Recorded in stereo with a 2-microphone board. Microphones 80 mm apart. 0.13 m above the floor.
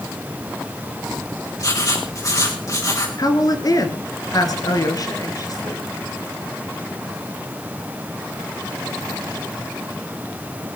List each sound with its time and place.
1.6 s writing: 45° left (ahead or behind), 4 m
3.2 s a woman speaking: 50° left (ahead or behind), 2.5 m